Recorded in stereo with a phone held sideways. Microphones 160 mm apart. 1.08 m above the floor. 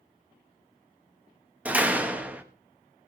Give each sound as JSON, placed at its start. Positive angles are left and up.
{"t": 1.6, "sound": "a door slam", "side_deg": -10, "distance_m": 1.2}